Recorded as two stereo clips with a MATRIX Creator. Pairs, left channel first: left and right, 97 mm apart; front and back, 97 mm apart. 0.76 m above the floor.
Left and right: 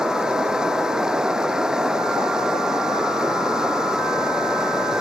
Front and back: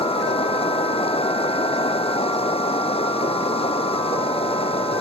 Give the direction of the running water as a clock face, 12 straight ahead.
12 o'clock.